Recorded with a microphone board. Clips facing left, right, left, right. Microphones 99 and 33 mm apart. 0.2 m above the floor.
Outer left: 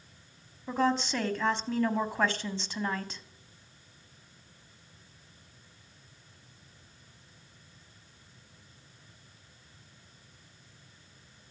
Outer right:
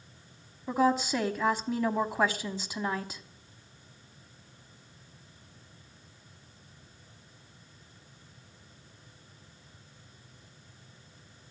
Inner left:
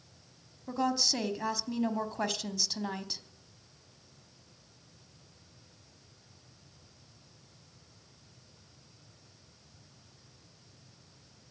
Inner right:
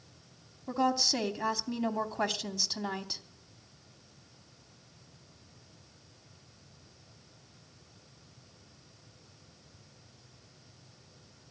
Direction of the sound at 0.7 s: 10° right (ahead or behind).